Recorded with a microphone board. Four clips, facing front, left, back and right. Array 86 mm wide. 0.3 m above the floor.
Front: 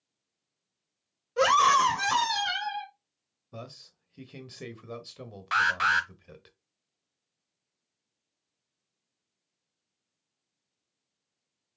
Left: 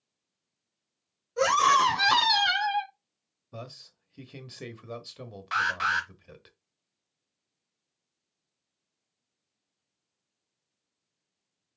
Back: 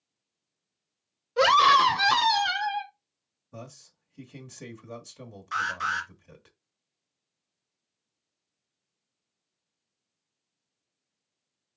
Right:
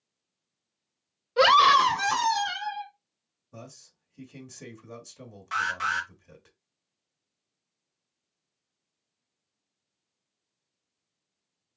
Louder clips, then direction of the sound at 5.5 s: Left 1 dB, front 4 dB; 15° left.